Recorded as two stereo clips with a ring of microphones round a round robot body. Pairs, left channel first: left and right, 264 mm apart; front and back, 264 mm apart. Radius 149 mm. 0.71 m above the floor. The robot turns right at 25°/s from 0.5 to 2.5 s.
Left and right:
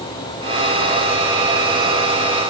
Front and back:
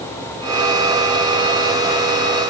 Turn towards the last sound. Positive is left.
No sound to turn to.